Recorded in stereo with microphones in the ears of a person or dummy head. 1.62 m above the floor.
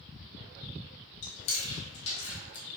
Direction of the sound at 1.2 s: 40° left (ahead or behind).